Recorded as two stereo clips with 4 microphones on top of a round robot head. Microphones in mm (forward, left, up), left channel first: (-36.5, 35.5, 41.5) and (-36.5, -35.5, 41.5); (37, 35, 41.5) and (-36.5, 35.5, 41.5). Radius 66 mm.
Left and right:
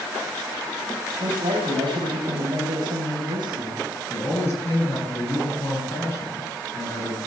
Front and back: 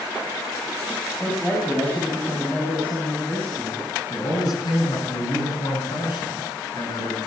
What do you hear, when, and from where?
1.2 s a man speaking: 75° right, 5 m
4.1 s a man speaking: 30° left, 9 m